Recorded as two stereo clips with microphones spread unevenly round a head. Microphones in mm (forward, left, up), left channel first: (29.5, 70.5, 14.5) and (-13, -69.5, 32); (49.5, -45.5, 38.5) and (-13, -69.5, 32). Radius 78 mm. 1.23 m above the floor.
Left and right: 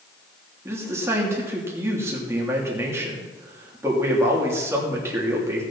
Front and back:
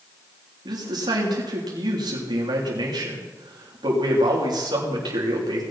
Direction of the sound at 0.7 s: Straight behind.